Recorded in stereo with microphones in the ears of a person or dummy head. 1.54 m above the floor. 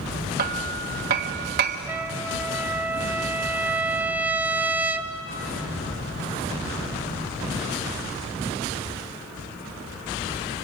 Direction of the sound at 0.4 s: 45° right (ahead or behind).